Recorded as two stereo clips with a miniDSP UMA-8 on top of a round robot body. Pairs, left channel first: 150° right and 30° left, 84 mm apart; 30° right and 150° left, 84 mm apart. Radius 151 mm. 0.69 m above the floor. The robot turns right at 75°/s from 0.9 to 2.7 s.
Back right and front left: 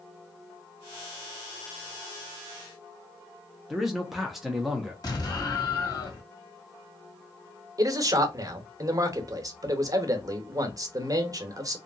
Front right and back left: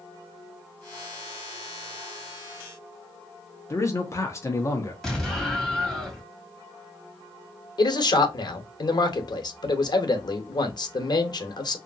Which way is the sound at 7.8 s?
10° right.